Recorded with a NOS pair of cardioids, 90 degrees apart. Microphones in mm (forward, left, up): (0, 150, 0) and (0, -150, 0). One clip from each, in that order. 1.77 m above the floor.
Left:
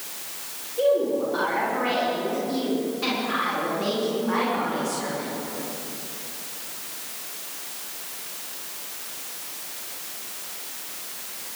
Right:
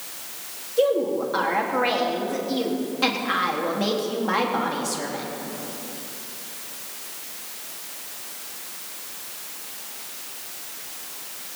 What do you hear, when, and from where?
0.8 s a woman speaking: 55° right, 4 m